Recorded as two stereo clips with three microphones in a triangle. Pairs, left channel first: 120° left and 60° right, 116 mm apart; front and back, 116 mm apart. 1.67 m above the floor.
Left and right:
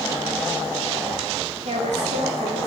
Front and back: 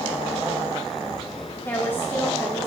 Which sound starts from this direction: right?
A woman speaking, at 1.6 s.